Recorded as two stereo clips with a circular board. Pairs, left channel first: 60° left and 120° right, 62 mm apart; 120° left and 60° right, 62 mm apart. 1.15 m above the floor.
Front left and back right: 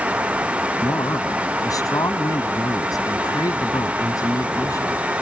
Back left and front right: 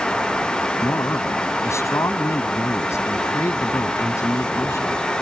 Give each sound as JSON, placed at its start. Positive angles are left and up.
{"t": 0.8, "sound": "a man speaking", "azimuth_deg": 80}